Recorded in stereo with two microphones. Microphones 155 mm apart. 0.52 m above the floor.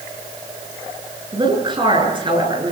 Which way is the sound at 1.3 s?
30° right (ahead or behind).